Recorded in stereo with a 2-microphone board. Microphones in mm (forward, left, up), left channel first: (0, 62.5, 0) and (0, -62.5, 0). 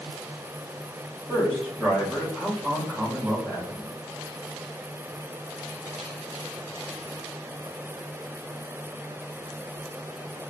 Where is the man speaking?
20° right (ahead or behind), 1.0 m.